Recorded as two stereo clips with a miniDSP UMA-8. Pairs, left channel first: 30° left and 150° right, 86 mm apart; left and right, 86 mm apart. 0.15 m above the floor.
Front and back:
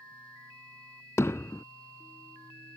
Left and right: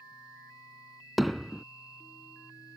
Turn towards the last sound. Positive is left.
turn(degrees=0)